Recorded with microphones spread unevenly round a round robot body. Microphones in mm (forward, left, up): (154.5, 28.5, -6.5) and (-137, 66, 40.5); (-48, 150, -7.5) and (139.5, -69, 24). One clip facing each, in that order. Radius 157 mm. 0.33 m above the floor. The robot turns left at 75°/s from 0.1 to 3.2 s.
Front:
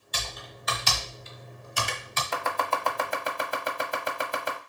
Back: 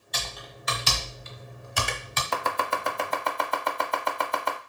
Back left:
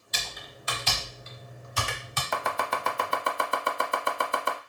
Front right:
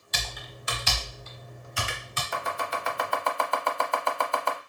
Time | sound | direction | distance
0.1 | typing on a keyboard | 85° right | 0.9 m
2.3 | chopping | 130° left | 0.7 m